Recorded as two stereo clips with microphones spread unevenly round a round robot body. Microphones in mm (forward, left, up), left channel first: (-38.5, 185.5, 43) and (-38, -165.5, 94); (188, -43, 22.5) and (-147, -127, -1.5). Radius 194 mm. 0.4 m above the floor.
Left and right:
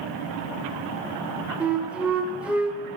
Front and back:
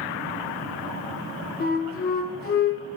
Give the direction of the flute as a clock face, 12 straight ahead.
12 o'clock.